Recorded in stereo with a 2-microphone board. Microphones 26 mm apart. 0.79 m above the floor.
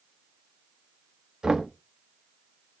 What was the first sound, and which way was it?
Knocking, 25° right (ahead or behind).